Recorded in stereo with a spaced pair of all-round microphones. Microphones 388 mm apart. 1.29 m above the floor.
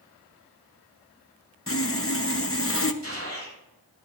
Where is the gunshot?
40° right (ahead or behind), 8 m.